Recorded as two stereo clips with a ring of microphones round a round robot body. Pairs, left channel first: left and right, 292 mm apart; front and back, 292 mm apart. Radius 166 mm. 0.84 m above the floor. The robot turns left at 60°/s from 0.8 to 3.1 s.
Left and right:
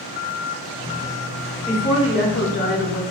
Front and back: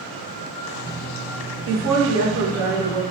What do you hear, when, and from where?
1.7 s a woman speaking: straight behind, 0.7 m; by 3.0 s 100° left, 0.7 m